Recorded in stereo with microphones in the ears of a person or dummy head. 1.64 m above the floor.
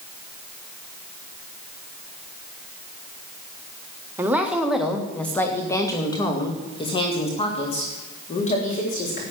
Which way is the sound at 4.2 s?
20° right (ahead or behind).